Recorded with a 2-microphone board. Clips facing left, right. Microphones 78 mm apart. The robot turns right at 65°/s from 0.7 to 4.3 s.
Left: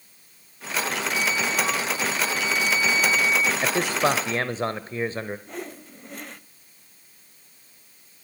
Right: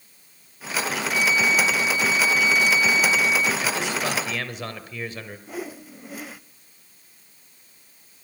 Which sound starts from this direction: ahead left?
A flute, at 1.1 s.